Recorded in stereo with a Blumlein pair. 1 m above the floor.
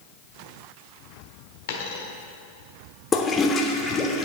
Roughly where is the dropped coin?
Ahead left.